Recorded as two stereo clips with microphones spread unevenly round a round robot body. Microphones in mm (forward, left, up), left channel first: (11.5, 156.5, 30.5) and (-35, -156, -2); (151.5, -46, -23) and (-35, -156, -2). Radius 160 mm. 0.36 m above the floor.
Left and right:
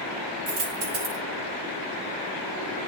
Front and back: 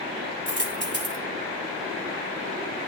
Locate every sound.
0.5 s a dropped coin: 115° right, 3.5 m